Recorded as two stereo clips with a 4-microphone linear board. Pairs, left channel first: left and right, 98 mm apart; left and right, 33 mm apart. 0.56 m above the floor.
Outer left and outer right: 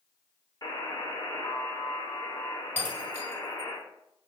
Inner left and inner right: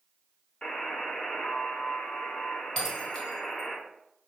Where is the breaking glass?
20° left (ahead or behind), 1.4 m.